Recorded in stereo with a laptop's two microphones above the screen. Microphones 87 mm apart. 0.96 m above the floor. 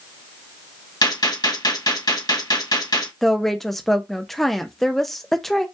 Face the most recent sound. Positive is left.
turn(degrees=5)  # may be behind; listen again after turning